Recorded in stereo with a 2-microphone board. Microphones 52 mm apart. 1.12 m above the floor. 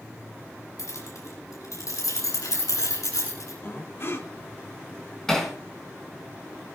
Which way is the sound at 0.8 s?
85° left.